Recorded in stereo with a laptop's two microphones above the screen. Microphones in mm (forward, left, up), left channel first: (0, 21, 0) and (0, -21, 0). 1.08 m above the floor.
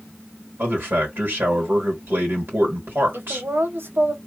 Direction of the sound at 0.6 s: 55° right (ahead or behind).